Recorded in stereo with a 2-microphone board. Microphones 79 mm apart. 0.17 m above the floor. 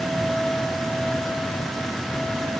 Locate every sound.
Only background noise.